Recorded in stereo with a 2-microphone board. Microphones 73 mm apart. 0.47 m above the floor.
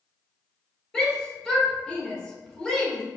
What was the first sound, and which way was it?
A shout, 10° left (ahead or behind).